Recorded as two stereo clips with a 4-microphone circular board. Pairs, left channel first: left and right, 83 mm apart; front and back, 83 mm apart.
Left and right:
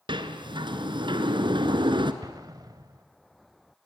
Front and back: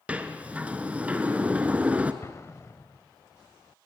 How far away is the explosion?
About 1.2 m.